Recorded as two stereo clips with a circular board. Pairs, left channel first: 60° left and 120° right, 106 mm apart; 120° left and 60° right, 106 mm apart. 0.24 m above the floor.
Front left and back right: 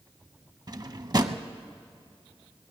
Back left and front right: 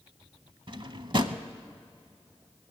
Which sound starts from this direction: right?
A drawer, at 0.7 s.